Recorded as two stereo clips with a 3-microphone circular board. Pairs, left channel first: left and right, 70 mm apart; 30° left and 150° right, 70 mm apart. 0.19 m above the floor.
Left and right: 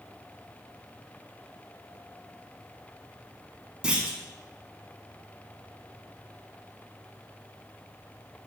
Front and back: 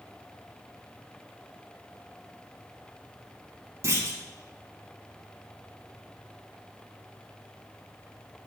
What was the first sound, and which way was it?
A clunk, 160° right.